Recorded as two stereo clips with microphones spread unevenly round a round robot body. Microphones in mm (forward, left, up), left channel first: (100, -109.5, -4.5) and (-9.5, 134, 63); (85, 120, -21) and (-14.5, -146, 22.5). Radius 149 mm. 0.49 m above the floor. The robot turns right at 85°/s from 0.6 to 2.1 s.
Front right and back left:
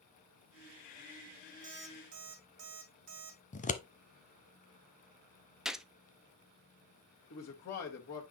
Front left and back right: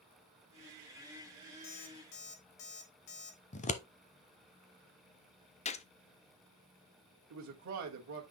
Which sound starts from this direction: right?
A man speaking, at 7.3 s.